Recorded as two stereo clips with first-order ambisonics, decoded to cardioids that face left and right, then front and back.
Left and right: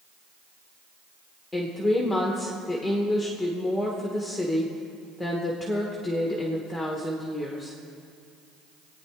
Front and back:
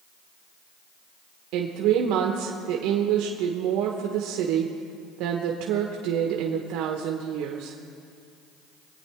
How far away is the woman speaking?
About 1.0 m.